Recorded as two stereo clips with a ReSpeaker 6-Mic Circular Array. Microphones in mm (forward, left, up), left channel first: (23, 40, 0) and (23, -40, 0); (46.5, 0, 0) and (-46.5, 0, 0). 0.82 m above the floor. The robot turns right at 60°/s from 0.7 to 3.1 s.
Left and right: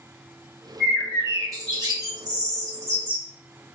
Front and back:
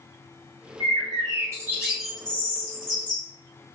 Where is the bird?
165° right, 1.6 m; by 3.2 s 30° right, 1.6 m.